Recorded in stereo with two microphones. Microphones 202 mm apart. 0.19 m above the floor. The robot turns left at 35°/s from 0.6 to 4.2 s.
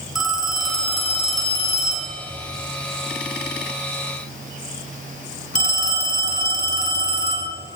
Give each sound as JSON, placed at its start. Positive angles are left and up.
{"t": 0.1, "sound": "a phone ringing", "azimuth_deg": 180, "distance_m": 1.7}